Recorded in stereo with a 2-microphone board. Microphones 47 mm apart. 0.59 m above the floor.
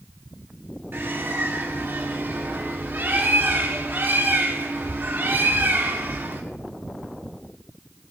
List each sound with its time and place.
0.9 s a bird: 50° right (ahead or behind), 1.7 m